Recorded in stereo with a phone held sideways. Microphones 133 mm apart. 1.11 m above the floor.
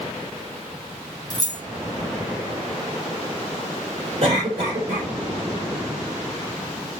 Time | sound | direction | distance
1.3 | keys jangling | 30° left (ahead or behind) | 1.1 m
4.2 | a cough | 50° right (ahead or behind) | 4 m